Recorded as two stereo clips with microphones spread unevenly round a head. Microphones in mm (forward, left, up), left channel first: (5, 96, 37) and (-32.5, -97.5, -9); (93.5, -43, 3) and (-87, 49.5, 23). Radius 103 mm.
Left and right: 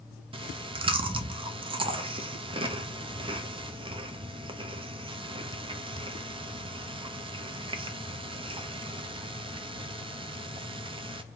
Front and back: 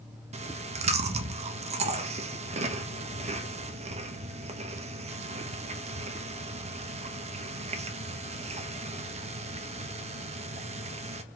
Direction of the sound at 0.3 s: 150° right.